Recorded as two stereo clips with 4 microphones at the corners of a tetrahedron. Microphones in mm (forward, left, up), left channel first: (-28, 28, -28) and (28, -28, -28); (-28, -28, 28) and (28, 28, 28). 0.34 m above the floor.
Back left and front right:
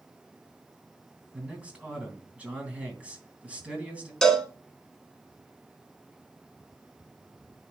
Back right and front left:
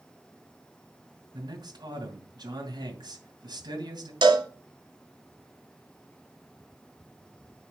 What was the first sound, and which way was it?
A man speaking, 25° left.